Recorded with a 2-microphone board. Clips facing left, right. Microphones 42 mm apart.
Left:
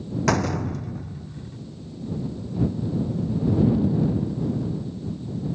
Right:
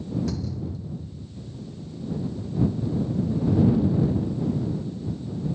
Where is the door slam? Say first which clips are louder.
Left 9 dB; 80° left.